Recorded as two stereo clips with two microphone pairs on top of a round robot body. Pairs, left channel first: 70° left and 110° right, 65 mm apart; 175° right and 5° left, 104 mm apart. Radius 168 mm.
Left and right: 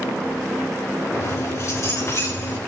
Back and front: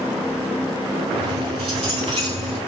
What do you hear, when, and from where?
1.1 s keys jangling: 30° left, 5 m